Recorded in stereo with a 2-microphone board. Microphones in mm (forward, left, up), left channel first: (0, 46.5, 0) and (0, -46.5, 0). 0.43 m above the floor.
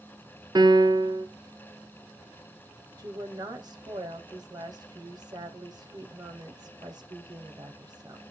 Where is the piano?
50° right (ahead or behind), 1.2 m.